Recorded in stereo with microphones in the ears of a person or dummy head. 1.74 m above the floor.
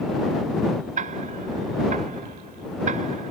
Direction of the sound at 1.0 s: 40° right (ahead or behind).